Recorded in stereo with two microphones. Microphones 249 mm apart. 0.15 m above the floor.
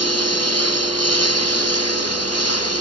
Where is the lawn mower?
90° left; by 2.8 s 85° left.